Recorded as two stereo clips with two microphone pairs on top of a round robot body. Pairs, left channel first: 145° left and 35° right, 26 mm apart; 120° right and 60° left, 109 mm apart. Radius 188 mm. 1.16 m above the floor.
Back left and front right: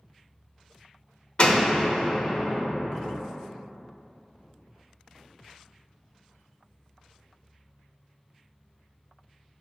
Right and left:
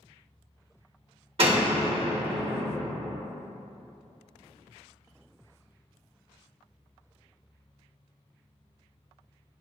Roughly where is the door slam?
Left.